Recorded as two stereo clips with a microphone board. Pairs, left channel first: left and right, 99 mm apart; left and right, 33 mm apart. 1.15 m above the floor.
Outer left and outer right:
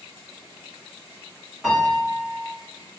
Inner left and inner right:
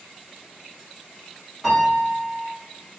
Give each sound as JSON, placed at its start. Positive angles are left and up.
{"t": 1.6, "sound": "a piano", "side_deg": -5, "distance_m": 1.4}